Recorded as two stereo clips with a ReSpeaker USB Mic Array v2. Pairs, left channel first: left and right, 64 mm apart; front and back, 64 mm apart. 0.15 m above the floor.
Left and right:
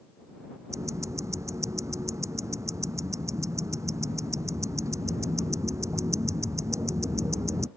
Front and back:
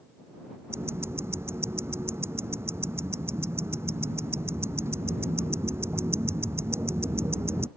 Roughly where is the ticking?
Behind right.